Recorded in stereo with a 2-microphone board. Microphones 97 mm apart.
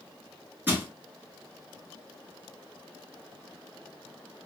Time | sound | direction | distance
0.7 | crushing | 20° right (ahead or behind) | 1.2 m